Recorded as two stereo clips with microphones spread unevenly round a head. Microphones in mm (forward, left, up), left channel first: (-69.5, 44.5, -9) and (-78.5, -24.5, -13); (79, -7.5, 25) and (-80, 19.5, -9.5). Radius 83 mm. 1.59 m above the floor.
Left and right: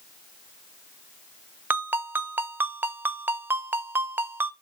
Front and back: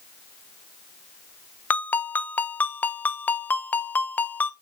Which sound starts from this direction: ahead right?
A ringtone, at 1.7 s.